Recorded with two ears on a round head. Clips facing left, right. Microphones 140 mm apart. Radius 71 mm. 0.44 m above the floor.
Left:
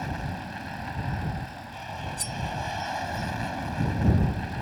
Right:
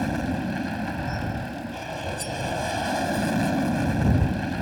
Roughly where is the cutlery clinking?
Centre.